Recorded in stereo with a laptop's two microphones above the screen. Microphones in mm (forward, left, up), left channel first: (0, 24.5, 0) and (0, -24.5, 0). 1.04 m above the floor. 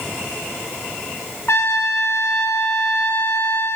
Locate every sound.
1.5 s a trumpet: 60° left (ahead or behind), 0.9 m